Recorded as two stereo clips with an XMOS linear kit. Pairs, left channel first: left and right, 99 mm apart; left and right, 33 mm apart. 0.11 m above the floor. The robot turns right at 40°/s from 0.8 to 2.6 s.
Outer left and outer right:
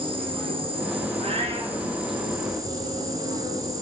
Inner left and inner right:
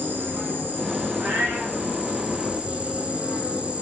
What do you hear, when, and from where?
0.0 s an insect: 110° right, 5.5 m; by 3.8 s 40° right, 5.5 m
1.2 s a cat meowing: 80° right, 6 m; by 1.8 s 60° right (ahead or behind), 6 m